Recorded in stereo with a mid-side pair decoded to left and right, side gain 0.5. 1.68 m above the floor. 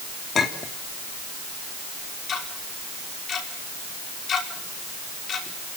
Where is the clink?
45° left, 3 m.